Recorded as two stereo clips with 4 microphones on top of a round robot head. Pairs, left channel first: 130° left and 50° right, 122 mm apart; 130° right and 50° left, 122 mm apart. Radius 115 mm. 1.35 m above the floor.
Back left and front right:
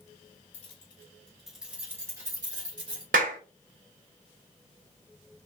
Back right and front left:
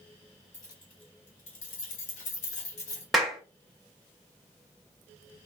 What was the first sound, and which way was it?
Keys jangling, 160° left.